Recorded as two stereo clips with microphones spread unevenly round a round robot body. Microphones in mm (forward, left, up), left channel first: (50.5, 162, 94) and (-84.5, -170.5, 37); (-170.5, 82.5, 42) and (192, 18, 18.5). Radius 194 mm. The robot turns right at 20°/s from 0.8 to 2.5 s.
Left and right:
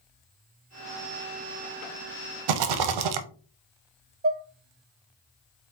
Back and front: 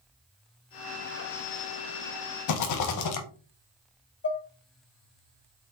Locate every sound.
2.5 s a rattle: 145° right, 0.5 m
4.2 s dishes clattering: 140° right, 0.8 m